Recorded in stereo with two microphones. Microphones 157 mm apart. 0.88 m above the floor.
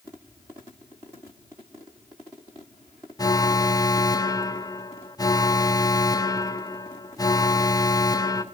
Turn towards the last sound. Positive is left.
turn(degrees=25)  # may be behind; listen again after turning